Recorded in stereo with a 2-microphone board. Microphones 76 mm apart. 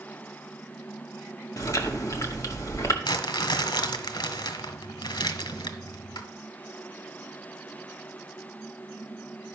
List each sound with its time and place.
1.6 s chewing: 45° left (ahead or behind), 1.3 m
3.0 s crumpling: 75° left (ahead or behind), 1.2 m